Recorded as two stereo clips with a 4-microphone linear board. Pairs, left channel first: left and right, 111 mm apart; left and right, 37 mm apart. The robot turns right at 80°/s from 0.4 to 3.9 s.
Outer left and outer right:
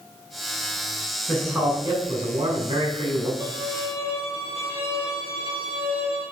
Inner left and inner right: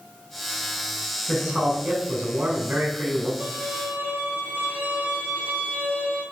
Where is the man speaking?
165° left, 2.5 m; by 3.3 s 35° right, 2.5 m.